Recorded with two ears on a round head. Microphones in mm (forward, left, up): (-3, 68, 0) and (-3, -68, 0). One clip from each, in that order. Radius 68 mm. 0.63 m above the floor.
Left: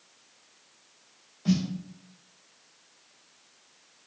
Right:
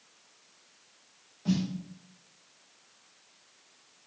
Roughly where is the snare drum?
Left.